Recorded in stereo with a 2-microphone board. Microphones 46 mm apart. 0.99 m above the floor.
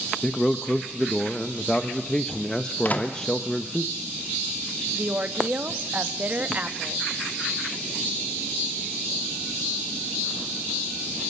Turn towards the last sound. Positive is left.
turn(degrees=-35)  # may be behind; listen again after turning